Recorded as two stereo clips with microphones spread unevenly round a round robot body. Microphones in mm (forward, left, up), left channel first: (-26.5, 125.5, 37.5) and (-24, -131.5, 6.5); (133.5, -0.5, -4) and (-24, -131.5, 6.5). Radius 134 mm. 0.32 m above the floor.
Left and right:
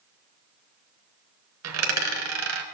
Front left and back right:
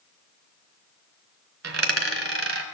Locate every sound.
1.6 s a dropped coin: 120° right, 1.2 m